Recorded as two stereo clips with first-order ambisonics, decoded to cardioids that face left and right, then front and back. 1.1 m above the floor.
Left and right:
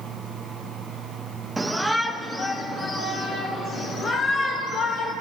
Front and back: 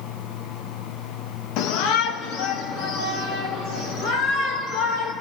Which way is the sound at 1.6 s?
10° right.